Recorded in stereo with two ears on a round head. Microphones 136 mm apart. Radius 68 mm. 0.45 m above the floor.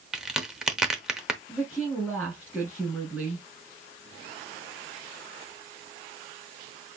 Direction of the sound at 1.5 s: 10° right (ahead or behind).